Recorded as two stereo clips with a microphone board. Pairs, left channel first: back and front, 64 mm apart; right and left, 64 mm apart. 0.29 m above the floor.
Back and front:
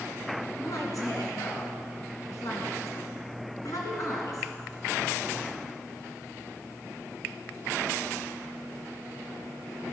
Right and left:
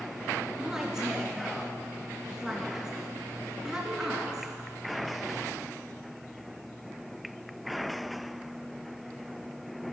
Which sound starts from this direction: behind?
A woman speaking, at 0.6 s.